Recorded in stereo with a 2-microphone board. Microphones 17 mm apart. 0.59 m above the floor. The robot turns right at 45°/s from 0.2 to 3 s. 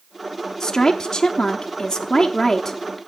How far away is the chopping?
No chopping in this recording.